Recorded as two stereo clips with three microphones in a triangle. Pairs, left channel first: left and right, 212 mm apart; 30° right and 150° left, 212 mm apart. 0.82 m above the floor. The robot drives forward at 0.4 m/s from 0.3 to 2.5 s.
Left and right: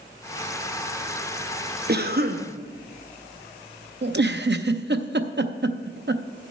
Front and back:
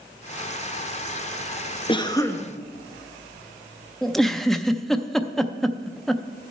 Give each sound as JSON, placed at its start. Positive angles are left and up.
{"t": 1.9, "sound": "a cough", "azimuth_deg": -90, "distance_m": 0.8}
{"t": 4.0, "sound": "a giggle", "azimuth_deg": -120, "distance_m": 0.5}